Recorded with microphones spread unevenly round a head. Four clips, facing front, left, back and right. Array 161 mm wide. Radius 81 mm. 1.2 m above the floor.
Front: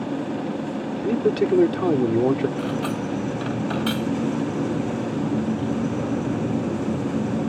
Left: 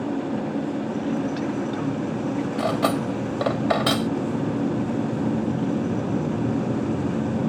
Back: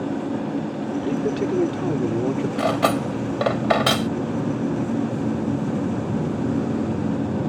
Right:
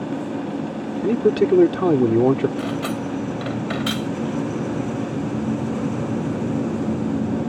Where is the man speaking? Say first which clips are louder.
Right 12 dB, front 4 dB; 75° right.